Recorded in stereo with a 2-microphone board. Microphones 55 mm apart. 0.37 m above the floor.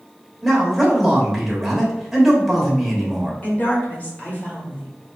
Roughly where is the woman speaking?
Left.